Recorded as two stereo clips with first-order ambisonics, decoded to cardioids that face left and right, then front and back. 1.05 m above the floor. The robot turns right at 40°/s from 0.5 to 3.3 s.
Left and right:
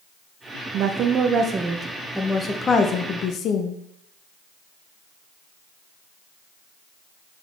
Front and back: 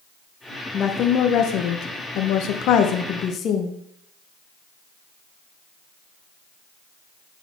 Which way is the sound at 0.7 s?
55° right.